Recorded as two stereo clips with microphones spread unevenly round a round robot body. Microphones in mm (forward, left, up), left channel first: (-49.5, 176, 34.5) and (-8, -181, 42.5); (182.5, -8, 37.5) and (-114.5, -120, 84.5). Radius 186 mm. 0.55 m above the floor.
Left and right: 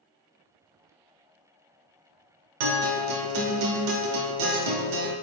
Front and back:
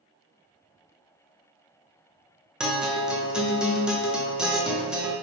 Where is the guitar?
70° right, 0.7 m.